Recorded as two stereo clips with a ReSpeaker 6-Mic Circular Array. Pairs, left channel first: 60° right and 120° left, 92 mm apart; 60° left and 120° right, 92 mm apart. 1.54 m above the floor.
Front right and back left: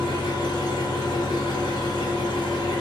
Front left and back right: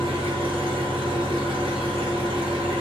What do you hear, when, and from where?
0.0 s an engine running: 100° right, 1.0 m